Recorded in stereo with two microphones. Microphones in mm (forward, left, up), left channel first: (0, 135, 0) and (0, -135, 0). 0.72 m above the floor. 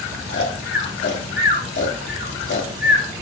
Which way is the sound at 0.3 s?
45° left (ahead or behind).